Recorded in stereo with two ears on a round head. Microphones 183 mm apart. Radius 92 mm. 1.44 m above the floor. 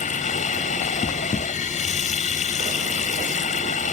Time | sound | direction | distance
0.0 | running water | 40° left (ahead or behind) | ?